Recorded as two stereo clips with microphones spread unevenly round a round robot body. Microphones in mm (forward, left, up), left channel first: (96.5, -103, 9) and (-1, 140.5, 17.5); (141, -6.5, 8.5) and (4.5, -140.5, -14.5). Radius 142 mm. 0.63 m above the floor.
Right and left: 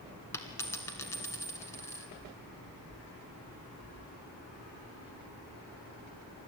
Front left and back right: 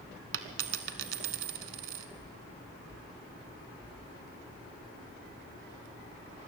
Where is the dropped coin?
150° right, 0.9 m.